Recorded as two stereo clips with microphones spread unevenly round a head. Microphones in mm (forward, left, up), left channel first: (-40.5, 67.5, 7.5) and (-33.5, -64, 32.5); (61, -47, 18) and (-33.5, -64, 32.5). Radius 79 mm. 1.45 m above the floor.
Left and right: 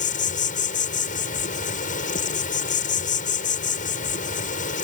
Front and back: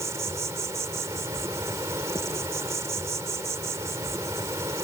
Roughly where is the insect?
Behind left.